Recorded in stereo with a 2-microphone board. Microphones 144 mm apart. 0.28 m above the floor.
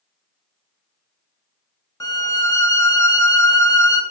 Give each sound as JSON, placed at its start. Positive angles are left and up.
{"t": 2.0, "sound": "a violin", "side_deg": 20, "distance_m": 0.6}